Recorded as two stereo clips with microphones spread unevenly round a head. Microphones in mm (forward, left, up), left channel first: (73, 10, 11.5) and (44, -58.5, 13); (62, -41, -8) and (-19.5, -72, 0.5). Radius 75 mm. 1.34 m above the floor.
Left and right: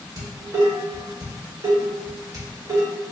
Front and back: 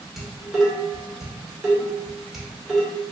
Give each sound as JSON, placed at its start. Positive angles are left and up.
{"t": 0.2, "sound": "dishes clattering", "azimuth_deg": -75, "distance_m": 1.4}